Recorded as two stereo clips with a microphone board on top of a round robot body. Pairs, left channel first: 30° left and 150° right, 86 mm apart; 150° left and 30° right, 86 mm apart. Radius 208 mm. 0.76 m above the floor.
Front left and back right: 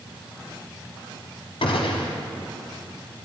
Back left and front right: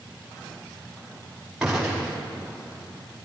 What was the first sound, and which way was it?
A gunshot, 55° left.